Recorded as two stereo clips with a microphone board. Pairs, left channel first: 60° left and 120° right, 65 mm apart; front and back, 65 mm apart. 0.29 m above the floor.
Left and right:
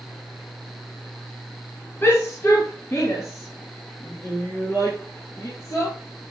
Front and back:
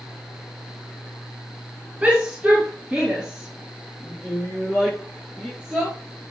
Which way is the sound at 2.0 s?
115° left.